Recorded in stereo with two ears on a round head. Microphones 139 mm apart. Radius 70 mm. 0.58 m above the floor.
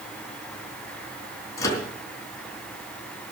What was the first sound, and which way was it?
A microwave, 20° left (ahead or behind).